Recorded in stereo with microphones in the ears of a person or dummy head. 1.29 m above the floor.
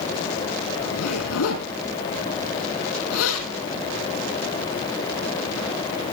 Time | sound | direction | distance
0.8 | a zipper | 80° left | 7 m